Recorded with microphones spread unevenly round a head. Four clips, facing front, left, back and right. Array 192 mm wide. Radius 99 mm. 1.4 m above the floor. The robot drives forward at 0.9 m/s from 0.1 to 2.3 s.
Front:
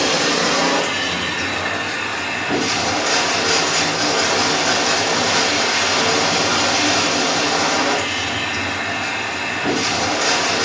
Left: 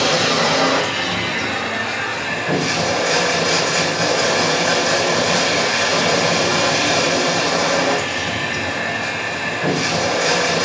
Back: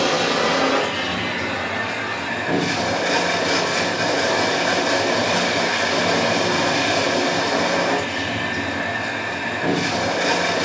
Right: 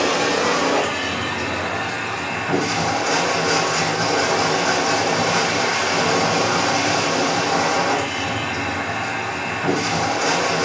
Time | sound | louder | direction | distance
0.0 | running water | left 1 dB, even | 100° left | 4.5 m